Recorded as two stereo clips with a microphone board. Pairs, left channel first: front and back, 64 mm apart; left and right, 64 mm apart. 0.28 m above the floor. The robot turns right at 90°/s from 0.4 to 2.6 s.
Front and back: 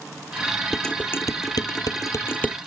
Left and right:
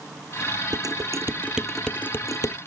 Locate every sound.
0.7 s dishes clattering: 90° right; by 2.6 s 75° left